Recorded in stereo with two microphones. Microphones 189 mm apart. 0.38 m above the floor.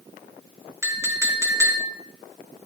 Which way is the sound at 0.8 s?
15° right (ahead or behind).